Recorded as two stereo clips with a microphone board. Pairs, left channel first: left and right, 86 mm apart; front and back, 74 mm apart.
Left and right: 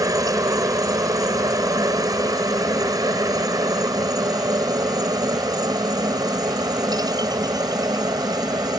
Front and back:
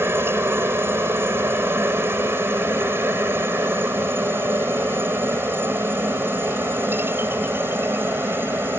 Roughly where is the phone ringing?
I don't hear a phone ringing.